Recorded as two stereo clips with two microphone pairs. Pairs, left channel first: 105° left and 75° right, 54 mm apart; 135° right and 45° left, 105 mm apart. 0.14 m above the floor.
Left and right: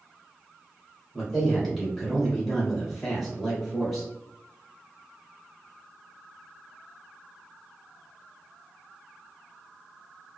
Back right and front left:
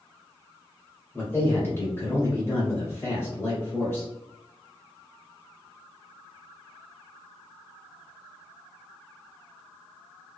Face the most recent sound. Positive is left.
turn(degrees=-165)